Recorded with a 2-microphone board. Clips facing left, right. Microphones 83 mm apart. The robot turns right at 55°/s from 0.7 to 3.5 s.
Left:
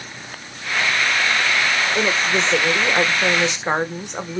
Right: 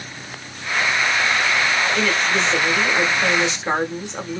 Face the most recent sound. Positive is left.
turn(degrees=15)  # may be behind; listen again after turning